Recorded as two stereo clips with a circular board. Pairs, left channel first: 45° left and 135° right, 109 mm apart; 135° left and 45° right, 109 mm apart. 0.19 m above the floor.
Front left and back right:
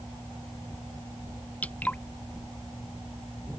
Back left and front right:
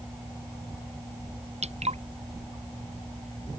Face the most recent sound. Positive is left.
turn(degrees=-30)